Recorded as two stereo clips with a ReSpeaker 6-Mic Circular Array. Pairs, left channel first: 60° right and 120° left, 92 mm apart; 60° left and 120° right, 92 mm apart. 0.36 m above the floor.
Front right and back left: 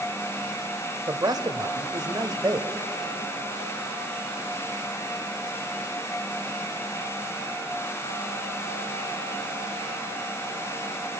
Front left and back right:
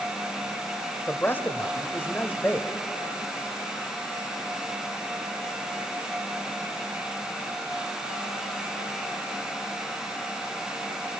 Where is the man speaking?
120° left, 1.3 m.